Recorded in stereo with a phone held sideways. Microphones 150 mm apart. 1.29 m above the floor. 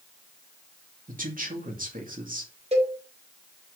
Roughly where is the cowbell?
Right.